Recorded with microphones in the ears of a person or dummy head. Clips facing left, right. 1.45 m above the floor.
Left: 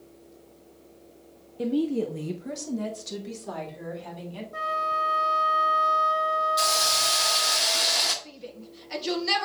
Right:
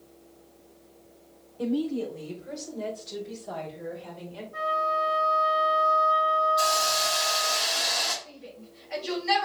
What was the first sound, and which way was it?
A woman speaking, 25° left (ahead or behind).